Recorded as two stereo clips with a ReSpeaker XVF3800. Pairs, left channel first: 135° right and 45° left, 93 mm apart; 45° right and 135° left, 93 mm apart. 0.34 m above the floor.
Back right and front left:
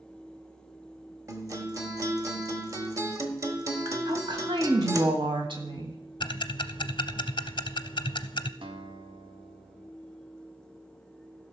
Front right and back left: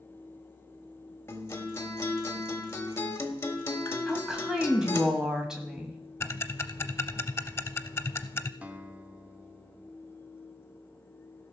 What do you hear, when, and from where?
1.3 s a guitar: 5° left, 1.2 m
4.1 s a woman speaking: 55° left, 1.6 m
6.2 s ticking: 105° right, 0.5 m
8.6 s a guitar: 60° left, 0.8 m